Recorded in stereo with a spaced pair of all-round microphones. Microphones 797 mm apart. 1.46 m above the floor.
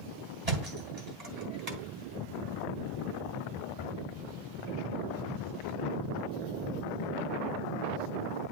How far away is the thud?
About 2.5 m.